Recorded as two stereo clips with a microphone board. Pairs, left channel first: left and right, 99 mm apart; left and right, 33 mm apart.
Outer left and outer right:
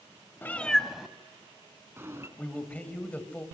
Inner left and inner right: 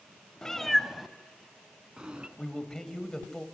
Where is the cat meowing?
20° left (ahead or behind), 1.1 m; by 2.3 s 30° right (ahead or behind), 2.5 m.